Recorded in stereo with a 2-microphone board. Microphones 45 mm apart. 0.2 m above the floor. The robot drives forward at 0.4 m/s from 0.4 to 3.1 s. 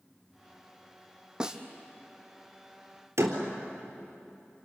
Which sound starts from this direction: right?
A door slam, at 3.2 s.